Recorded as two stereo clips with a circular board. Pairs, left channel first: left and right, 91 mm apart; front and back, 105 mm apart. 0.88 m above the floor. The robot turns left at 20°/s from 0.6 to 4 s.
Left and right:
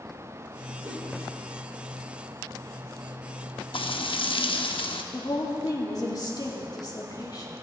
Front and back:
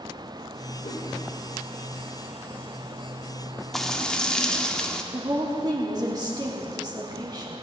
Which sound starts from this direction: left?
Frying, at 3.7 s.